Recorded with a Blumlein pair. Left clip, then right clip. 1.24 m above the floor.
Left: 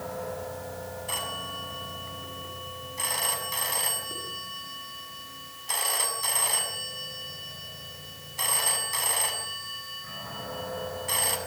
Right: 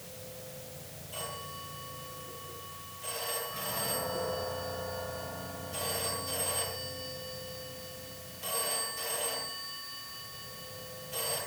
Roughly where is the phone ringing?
Ahead left.